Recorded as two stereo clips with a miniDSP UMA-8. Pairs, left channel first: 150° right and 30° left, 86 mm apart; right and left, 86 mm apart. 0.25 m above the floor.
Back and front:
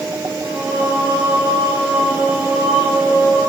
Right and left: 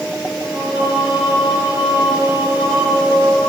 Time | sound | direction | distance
0.4 | singing | 90° left | 1.8 m